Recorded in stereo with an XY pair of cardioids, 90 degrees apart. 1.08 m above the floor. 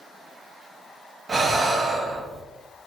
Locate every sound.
1.3 s breathing: 45° right, 0.7 m